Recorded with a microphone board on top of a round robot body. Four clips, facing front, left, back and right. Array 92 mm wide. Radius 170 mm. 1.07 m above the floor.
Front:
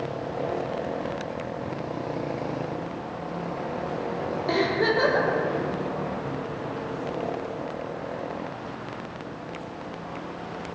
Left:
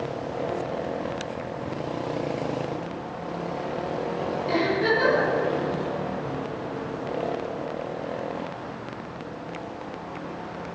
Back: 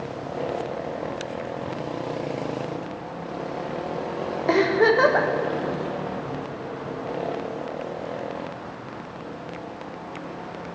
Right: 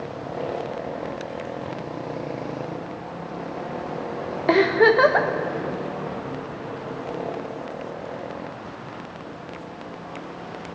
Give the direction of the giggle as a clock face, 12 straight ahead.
4 o'clock.